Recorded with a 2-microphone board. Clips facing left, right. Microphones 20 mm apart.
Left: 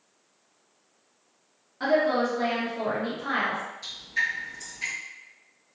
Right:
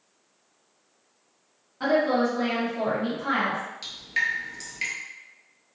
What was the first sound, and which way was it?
A woman speaking, 5° left (ahead or behind).